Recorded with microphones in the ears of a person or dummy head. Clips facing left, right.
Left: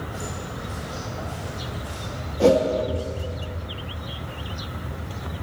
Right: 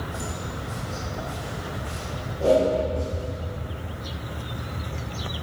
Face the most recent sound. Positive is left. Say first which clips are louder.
# left 2 dB
turn(degrees=85)